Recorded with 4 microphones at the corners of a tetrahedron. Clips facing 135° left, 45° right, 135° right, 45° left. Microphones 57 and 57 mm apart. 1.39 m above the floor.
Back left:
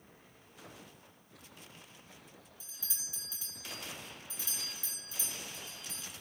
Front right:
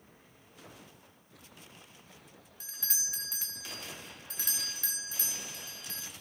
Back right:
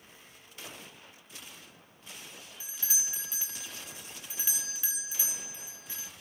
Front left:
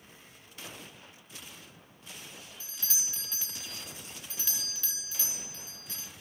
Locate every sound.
2.6 s a doorbell: 65° right, 1.2 m